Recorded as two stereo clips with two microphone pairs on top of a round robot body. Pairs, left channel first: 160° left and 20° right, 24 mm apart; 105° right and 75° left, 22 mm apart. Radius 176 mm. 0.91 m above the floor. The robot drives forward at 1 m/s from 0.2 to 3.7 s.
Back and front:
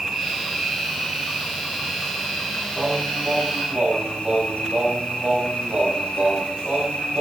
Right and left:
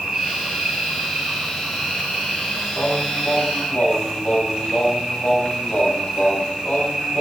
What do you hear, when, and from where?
0.0 s an insect: 45° left, 3 m; by 7.2 s 125° left, 2.5 m
2.8 s singing: 65° right, 6.5 m; by 7.2 s 75° right, 6 m